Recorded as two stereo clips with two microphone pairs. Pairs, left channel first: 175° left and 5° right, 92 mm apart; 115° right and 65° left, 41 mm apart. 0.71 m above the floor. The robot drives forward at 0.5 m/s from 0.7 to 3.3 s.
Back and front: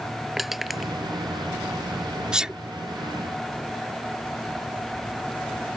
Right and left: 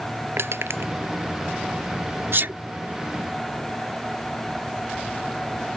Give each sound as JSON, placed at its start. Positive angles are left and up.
{"t": 0.4, "sound": "crushing", "azimuth_deg": 80}
{"t": 2.3, "sound": "a sneeze", "azimuth_deg": 75}